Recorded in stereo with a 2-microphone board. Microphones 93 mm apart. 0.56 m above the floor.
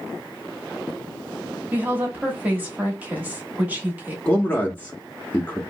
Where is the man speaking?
20° left (ahead or behind), 0.6 m.